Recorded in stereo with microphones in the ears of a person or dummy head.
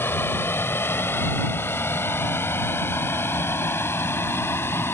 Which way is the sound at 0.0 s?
15° left (ahead or behind).